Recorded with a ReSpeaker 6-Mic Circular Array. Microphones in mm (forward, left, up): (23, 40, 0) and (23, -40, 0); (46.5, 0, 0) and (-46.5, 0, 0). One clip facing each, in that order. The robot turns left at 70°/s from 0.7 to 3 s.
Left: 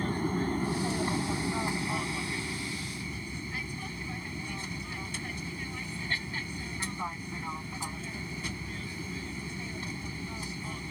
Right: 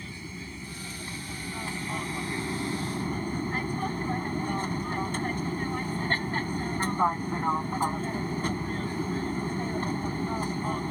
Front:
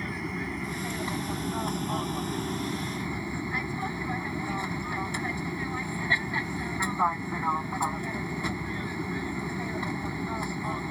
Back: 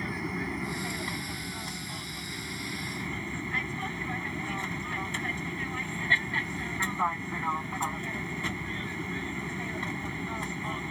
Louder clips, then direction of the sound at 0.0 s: Left 11 dB, even; 90° left.